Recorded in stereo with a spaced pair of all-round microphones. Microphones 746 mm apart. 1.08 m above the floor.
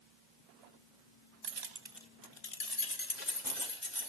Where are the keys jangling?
55° right (ahead or behind), 0.8 m; by 4.1 s 70° left (ahead or behind), 3 m.